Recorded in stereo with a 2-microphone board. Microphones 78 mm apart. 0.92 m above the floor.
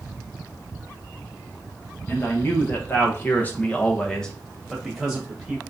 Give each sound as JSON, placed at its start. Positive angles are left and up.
{"t": 2.1, "sound": "a man speaking", "side_deg": 30, "distance_m": 1.3}